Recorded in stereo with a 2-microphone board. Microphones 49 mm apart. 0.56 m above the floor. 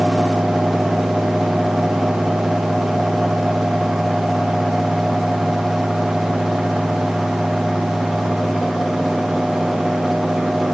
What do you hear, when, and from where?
Only background noise.